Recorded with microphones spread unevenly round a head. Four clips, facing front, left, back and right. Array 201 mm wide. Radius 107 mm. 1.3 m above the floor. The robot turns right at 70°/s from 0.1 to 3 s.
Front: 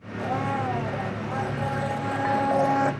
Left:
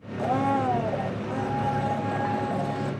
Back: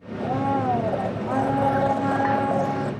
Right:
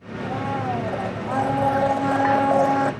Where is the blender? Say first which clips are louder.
Left 3 dB, back 4 dB; 120° left, 0.9 m; by 2.9 s 50° right, 0.9 m.